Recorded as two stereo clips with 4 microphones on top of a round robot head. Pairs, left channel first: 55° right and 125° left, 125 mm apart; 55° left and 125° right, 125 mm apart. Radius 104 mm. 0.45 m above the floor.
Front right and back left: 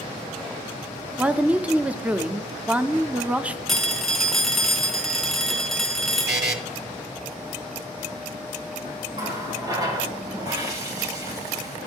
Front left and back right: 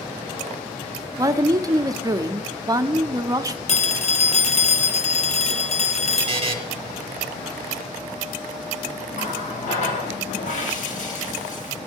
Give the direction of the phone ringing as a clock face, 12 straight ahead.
11 o'clock.